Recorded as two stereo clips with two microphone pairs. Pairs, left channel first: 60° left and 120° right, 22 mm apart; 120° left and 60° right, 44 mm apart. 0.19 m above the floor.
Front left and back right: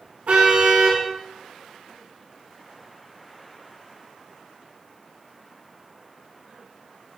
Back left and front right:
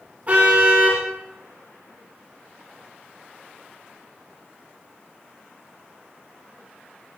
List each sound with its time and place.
0.3 s a car horn: 115° right, 8.5 m